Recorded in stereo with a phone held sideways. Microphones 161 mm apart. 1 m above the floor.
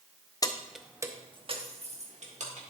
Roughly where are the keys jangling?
Left.